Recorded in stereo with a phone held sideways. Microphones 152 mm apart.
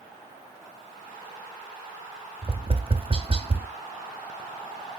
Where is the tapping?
40° right (ahead or behind), 1.0 m.